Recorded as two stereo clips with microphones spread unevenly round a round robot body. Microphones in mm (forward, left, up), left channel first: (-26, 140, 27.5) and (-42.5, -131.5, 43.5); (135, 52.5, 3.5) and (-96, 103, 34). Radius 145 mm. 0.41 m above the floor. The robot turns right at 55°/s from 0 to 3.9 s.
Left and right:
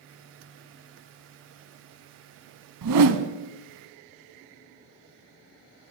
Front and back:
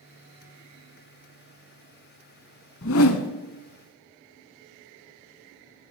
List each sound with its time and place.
2.8 s a whoosh: 65° right, 0.5 m; by 3.3 s 40° right, 0.5 m